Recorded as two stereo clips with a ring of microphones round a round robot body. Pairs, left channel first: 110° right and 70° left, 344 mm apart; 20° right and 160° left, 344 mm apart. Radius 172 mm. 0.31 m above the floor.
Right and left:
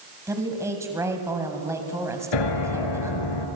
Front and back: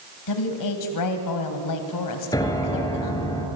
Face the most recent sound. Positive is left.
turn(degrees=-100)